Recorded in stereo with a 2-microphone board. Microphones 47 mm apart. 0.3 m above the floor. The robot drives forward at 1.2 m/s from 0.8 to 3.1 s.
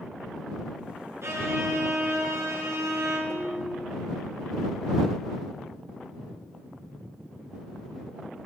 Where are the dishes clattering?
65° right (ahead or behind), 2.5 m.